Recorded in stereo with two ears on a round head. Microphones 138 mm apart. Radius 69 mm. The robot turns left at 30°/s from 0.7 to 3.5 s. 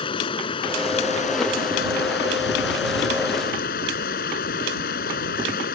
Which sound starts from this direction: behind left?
Running water, at 0.0 s.